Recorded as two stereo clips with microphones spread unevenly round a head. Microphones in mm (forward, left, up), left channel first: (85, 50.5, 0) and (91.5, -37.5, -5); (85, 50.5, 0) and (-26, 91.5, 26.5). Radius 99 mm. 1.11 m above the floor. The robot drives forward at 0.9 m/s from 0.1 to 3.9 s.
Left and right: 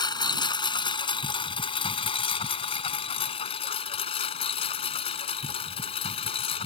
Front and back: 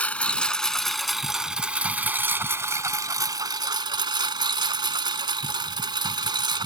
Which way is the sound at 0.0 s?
60° left.